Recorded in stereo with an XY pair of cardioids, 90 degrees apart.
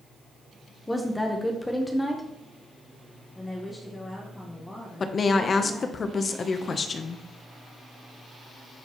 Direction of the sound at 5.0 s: 45° left.